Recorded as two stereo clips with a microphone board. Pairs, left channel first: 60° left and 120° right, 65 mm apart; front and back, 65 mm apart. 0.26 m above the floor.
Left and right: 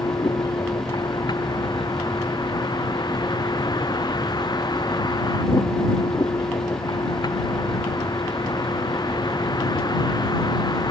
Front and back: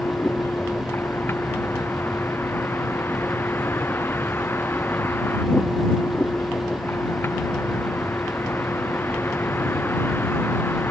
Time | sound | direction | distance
0.0 | a vehicle | 55° left | ?